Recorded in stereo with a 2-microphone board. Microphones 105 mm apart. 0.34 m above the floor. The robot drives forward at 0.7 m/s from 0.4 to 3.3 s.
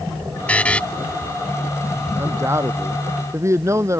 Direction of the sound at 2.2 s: 25° right (ahead or behind).